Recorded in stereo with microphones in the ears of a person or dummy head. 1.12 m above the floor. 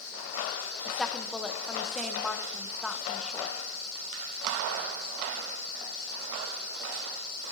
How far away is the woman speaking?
About 0.7 m.